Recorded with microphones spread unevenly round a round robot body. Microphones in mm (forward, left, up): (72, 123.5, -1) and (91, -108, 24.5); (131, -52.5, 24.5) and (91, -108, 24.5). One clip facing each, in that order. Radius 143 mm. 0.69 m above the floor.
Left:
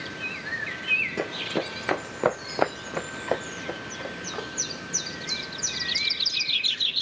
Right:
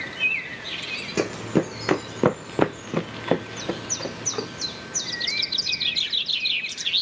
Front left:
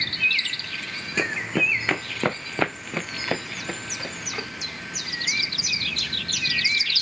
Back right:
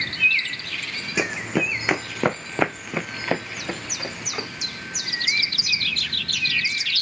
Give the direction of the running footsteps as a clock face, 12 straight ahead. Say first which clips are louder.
Right 7 dB, back right 1 dB; 1 o'clock.